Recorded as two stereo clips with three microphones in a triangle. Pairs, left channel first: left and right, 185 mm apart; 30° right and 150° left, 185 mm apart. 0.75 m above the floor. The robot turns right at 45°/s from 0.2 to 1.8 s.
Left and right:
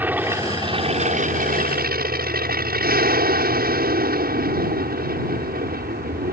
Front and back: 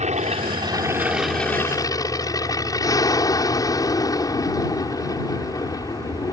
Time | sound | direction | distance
0.0 | an aircraft | 170° right | ?